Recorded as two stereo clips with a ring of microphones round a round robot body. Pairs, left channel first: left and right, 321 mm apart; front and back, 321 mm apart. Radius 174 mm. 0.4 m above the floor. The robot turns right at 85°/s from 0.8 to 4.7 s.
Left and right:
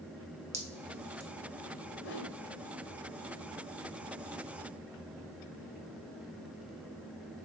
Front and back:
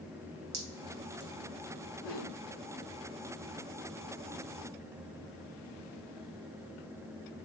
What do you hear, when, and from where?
0.5 s dripping: 160° right, 3 m; by 1.3 s 115° right, 3 m
2.0 s a whoosh: 25° left, 1.5 m; by 2.4 s 55° left, 1.5 m